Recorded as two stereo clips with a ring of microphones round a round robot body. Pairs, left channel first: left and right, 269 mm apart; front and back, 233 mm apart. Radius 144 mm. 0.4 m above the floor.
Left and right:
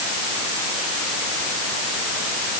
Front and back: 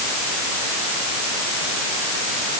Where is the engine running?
I don't hear an engine running.